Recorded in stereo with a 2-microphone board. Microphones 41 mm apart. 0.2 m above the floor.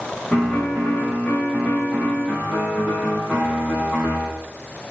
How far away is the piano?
About 7.5 m.